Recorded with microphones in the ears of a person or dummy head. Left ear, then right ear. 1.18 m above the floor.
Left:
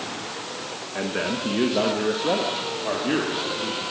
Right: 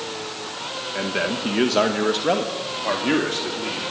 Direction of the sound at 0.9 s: 10° right (ahead or behind).